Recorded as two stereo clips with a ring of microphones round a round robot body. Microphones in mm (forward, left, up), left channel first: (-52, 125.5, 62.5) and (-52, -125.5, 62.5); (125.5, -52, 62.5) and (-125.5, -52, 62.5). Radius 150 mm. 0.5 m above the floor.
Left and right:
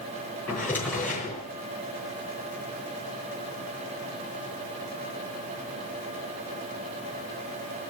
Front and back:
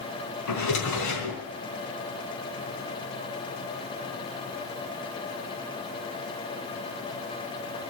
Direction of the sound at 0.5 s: 5° left.